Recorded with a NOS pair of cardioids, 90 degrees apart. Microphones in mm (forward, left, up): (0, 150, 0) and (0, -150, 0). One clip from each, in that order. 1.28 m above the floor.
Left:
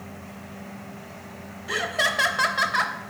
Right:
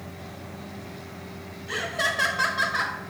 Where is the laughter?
25° left, 1.1 m.